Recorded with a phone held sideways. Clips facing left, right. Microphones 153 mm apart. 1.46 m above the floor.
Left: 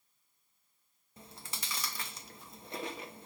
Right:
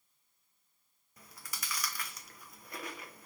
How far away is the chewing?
About 0.9 m.